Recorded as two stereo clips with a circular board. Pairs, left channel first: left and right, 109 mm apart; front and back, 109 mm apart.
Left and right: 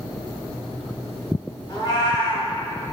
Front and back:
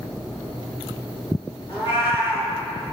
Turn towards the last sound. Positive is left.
turn(degrees=40)